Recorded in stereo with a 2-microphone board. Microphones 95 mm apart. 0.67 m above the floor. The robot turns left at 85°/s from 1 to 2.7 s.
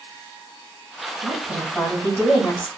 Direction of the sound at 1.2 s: 140° right.